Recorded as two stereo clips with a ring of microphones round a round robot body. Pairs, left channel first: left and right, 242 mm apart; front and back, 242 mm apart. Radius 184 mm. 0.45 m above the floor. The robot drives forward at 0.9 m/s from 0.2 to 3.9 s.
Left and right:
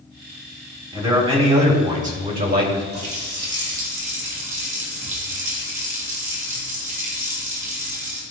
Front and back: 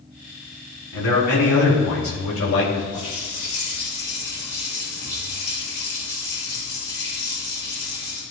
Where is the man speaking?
25° right, 3.5 m; by 2.8 s 45° right, 1.9 m.